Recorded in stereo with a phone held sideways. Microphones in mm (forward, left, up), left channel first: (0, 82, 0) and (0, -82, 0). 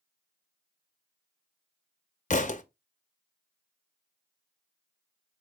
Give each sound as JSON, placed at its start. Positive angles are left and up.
{"t": 2.3, "sound": "a thud", "side_deg": 50, "distance_m": 0.5}